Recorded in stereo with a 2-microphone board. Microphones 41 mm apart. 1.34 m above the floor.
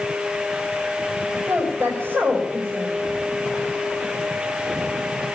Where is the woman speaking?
50° right (ahead or behind), 4 m.